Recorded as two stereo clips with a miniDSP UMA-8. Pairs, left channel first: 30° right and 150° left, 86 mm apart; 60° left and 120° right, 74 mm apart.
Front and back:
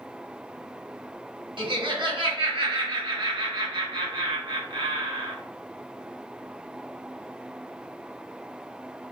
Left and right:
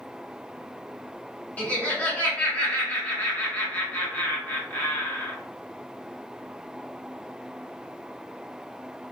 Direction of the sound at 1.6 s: 130° left.